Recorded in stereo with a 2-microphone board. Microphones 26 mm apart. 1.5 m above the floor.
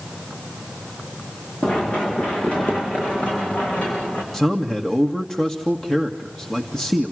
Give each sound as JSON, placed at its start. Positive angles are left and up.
{"t": 1.6, "sound": "running footsteps", "side_deg": 55, "distance_m": 9.0}
{"t": 4.3, "sound": "a man speaking", "side_deg": 15, "distance_m": 1.9}